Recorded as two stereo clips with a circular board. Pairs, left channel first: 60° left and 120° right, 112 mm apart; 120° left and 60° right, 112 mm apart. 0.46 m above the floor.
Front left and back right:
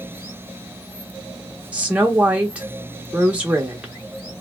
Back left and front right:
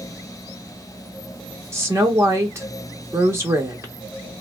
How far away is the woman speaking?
About 0.9 m.